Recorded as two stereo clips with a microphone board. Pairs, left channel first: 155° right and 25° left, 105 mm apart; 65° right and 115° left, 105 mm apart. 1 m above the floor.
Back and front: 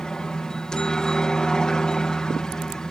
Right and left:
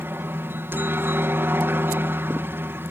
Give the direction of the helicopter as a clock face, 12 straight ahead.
8 o'clock.